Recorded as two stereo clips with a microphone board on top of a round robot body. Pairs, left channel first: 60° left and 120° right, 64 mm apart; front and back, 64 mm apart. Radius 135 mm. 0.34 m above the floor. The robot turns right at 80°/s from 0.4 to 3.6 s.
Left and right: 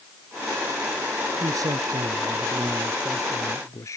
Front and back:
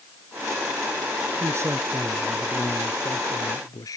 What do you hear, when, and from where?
1.4 s a man speaking: 155° right; by 4.0 s 25° left